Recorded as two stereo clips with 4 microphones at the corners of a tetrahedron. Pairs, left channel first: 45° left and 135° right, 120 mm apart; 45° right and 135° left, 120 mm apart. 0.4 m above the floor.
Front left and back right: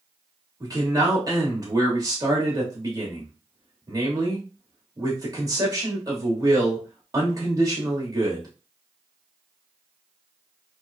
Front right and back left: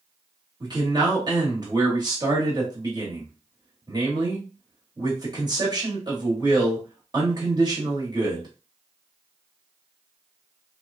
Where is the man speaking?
175° left, 1.3 m.